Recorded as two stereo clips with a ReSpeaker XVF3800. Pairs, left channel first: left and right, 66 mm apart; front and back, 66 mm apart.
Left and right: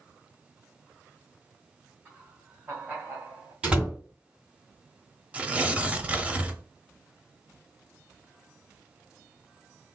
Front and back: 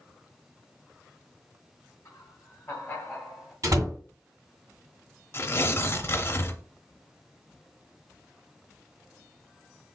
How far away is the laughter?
About 2.5 m.